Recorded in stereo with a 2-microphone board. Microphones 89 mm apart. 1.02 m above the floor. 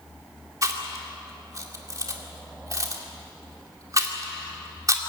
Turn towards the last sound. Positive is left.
turn(degrees=-40)  # may be behind; listen again after turning